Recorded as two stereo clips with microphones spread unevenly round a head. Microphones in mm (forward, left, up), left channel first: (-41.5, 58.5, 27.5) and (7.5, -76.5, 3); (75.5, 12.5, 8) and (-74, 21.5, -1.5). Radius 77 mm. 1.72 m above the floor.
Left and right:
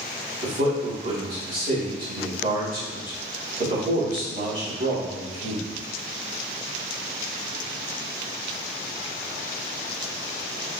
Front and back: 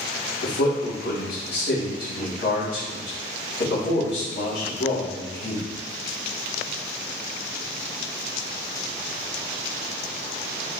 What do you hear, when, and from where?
0.4 s a man speaking: 35° right, 2.5 m